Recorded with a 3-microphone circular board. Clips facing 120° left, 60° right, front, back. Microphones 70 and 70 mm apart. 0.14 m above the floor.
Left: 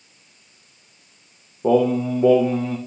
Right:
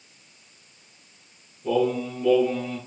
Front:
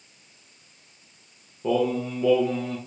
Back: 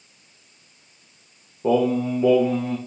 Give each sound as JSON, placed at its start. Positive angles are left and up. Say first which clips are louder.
{"t": 1.6, "sound": "singing", "louder": "left 6 dB, back 4 dB", "azimuth_deg": 115, "distance_m": 3.0}